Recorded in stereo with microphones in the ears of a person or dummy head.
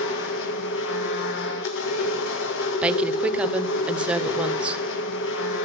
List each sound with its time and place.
0.0 s a machine running: 70° left (ahead or behind), 2.0 m
2.8 s a woman speaking: 5° right (ahead or behind), 1.1 m